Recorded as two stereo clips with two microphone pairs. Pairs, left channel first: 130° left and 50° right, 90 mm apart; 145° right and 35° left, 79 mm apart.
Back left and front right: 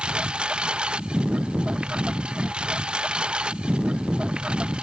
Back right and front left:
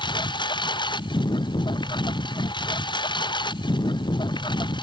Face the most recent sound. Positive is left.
turn(degrees=-130)